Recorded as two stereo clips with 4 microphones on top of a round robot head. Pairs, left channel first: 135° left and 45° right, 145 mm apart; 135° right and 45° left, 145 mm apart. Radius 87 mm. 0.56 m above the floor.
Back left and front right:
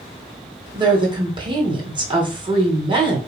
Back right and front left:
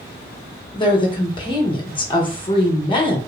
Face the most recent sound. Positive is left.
turn(degrees=-90)